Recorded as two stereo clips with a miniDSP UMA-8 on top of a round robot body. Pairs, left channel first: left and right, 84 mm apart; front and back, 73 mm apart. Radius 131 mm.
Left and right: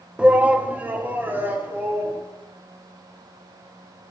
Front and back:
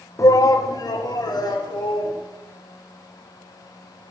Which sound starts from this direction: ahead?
A shout, at 0.2 s.